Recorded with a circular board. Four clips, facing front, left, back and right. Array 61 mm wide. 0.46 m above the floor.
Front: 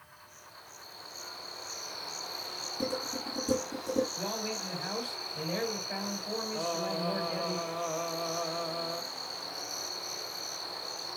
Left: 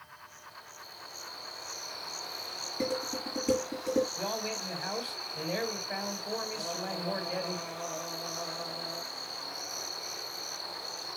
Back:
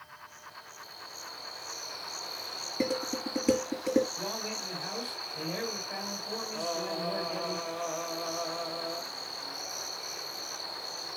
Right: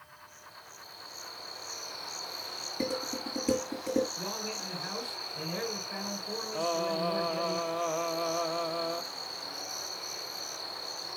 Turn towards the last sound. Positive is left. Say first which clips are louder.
# right 7 dB, even
turn(degrees=-85)